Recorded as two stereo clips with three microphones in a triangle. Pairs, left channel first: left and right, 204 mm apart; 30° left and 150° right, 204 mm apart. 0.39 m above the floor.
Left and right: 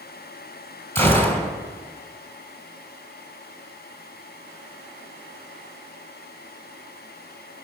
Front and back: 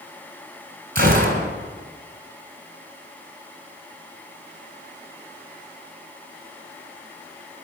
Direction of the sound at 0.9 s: 170° left.